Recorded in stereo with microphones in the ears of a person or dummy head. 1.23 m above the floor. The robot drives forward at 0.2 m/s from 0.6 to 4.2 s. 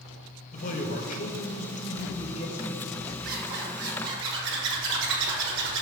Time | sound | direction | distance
0.5 | a man speaking | 40° left (ahead or behind) | 0.6 m
3.2 | a zipper | 55° right (ahead or behind) | 1.4 m